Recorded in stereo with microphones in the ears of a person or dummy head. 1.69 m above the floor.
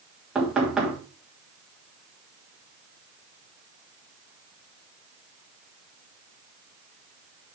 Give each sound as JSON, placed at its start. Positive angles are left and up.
{"t": 0.3, "sound": "knocking", "side_deg": -5, "distance_m": 2.5}